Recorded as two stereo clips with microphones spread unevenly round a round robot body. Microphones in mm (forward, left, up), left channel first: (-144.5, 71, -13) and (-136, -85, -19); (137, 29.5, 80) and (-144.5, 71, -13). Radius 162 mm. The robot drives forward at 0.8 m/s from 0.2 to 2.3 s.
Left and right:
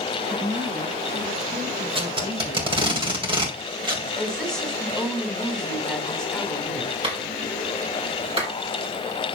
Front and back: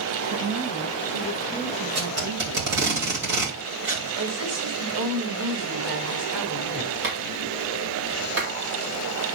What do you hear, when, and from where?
0.3 s a woman speaking: 155° right, 8 m; by 3.0 s 160° right, 9.5 m
1.9 s tape being pulled: 140° right, 2.5 m; by 4.1 s 145° right, 2.5 m
4.2 s a woman speaking: straight behind, 4.5 m
7.0 s a clap: 140° right, 4 m